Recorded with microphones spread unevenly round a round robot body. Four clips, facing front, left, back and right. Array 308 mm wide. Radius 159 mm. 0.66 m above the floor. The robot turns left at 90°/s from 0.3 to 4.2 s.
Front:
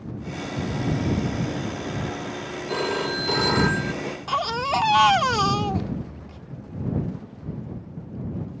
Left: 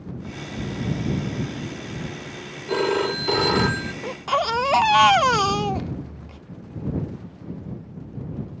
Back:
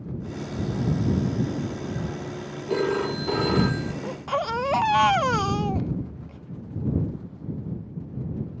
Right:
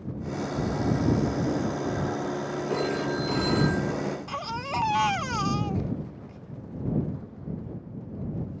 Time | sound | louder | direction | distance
2.7 | a phone ringing | left 7 dB, back 2 dB | 150° left | ?
4.0 | a baby crying | left 8 dB, front 1 dB | 105° left | ?